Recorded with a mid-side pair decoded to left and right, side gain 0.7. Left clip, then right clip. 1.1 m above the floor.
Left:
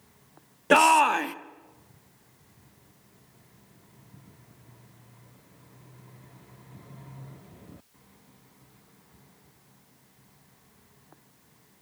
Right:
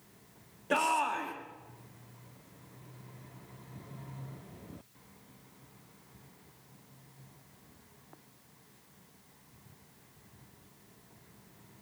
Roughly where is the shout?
Ahead left.